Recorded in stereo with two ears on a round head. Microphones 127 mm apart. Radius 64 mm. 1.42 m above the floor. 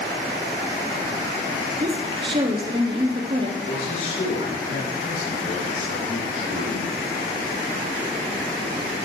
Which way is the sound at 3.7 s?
60° left (ahead or behind).